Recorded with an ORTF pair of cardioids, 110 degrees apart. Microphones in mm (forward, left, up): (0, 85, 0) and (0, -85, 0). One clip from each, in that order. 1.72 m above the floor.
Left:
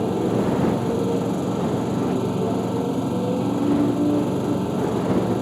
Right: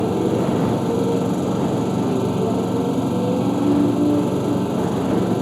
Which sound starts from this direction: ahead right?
A motorcycle, at 0.0 s.